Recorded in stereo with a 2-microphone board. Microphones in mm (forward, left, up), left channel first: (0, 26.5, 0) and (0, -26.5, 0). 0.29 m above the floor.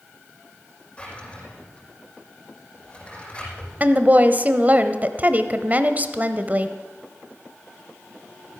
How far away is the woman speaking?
About 1.0 m.